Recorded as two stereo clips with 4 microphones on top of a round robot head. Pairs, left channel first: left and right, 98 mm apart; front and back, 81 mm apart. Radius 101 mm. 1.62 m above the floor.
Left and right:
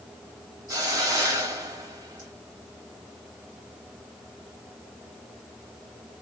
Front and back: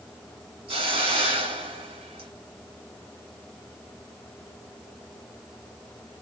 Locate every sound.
0.7 s a hiss: 150° right, 1.5 m